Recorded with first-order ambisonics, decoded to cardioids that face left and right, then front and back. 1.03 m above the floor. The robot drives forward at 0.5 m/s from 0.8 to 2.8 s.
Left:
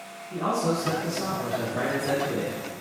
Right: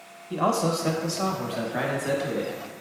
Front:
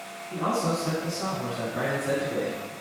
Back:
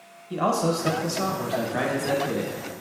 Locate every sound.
0.3 s a man speaking: 135° right, 0.7 m; by 2.6 s 160° right, 1.5 m